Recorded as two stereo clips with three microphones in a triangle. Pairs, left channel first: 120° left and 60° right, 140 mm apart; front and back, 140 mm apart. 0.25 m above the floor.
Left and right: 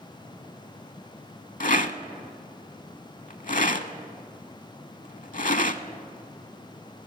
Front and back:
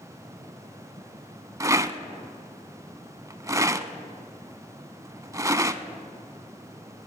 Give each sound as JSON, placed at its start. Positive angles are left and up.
{"t": 1.6, "sound": "a rattle", "azimuth_deg": 115, "distance_m": 0.6}